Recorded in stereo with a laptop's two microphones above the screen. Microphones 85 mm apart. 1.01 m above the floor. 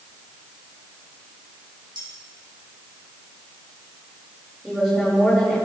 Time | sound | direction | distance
1.9 | cutlery clinking | 75° right (ahead or behind) | 4 m
4.6 | a woman speaking | centre (ahead or behind) | 4 m